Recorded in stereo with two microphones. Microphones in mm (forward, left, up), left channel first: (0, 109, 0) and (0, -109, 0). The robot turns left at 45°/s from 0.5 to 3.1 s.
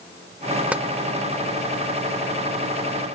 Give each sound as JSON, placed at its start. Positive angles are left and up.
{"t": 0.7, "sound": "tapping", "side_deg": -5, "distance_m": 0.6}